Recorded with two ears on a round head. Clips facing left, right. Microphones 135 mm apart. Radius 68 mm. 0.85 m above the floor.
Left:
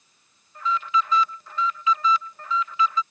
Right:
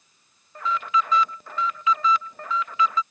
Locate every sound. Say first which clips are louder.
0.6 s an alarm: even; 45° right (ahead or behind)